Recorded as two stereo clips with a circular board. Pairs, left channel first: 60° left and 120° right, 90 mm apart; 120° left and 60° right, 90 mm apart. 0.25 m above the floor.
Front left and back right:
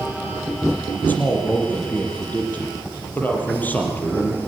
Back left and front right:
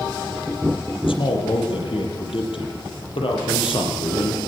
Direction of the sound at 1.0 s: 130° left.